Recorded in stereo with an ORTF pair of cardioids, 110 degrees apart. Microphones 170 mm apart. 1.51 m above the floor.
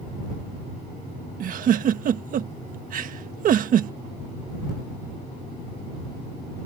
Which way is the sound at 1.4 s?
55° right.